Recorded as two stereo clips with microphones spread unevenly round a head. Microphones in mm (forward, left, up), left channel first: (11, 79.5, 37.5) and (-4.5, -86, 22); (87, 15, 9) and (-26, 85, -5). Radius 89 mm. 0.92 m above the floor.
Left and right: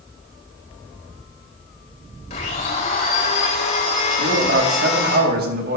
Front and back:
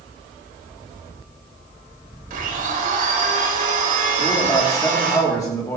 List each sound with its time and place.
2.3 s a blender: 135° left, 4 m
4.2 s a man speaking: 105° right, 2.5 m